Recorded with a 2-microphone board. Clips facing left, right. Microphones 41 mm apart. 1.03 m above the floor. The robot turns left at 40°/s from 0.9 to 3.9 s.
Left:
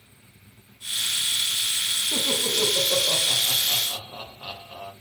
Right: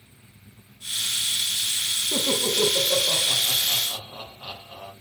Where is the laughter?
15° right (ahead or behind), 0.9 m; by 4.9 s 30° left (ahead or behind), 0.9 m.